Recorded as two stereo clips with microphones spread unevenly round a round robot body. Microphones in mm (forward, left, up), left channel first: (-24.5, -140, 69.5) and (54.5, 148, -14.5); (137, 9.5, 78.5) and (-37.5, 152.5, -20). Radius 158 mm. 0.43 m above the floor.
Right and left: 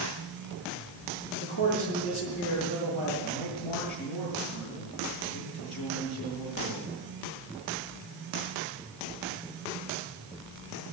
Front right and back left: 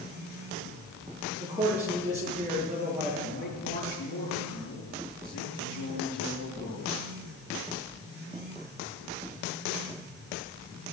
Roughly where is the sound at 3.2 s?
Right.